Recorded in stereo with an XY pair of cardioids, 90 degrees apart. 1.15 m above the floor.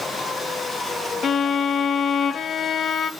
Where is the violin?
65° left, 0.8 m.